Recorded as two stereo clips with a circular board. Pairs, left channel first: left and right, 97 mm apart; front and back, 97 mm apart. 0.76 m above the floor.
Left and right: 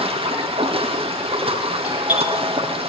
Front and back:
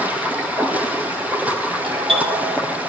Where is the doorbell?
165° right, 5 m.